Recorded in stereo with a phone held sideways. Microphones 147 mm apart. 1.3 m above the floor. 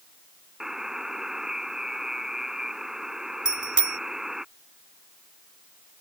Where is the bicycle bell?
50° left (ahead or behind).